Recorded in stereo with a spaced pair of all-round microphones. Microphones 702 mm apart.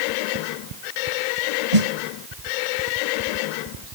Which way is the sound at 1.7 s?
55° right (ahead or behind).